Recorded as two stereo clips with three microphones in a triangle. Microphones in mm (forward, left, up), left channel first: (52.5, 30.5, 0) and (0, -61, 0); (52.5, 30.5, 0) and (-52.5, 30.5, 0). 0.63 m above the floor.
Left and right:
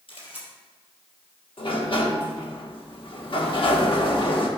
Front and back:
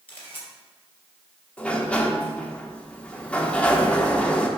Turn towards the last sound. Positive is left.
turn(degrees=75)